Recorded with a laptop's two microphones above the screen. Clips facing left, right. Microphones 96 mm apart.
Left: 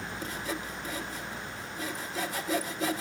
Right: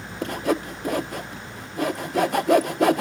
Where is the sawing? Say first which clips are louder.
Right 14 dB; 60° right (ahead or behind), 0.5 m.